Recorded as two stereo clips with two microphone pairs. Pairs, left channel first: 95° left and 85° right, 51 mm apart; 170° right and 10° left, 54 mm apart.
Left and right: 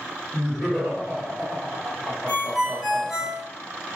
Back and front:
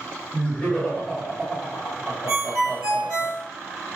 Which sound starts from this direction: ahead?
A ringtone, at 2.3 s.